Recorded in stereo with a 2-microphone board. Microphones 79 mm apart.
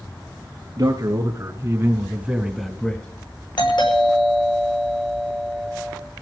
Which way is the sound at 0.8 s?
55° right (ahead or behind).